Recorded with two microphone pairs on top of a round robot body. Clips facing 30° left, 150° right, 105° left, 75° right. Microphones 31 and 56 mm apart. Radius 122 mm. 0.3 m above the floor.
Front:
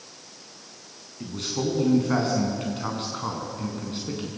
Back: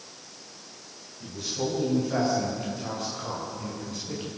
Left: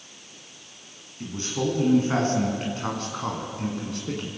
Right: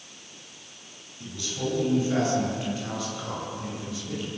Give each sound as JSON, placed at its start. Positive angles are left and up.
{"t": 1.2, "sound": "a man speaking", "azimuth_deg": 55, "distance_m": 5.5}